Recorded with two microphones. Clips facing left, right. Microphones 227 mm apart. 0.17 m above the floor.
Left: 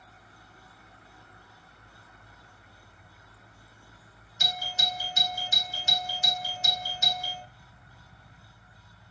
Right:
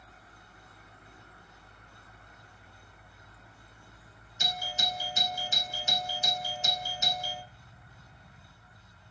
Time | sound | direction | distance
4.4 | a doorbell | 15° right (ahead or behind) | 2.5 m